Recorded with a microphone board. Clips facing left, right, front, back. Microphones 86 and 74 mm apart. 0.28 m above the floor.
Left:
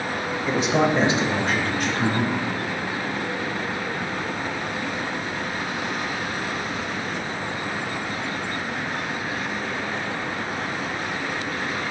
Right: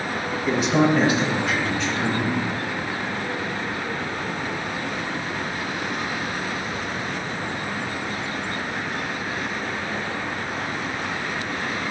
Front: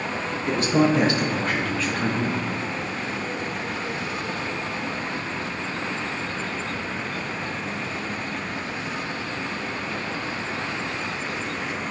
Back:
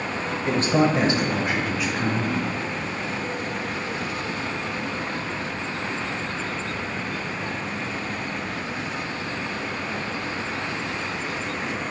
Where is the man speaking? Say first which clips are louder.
Right 2 dB, even; 170° right, 1.1 m; by 2.4 s 95° left, 2 m.